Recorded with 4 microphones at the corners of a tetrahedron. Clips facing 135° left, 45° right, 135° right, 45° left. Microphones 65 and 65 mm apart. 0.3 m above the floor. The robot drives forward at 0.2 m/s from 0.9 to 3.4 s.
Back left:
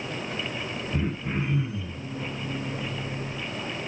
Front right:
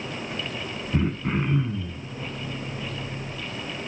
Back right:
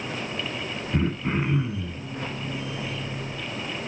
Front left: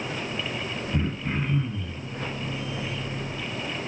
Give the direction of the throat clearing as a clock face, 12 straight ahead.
3 o'clock.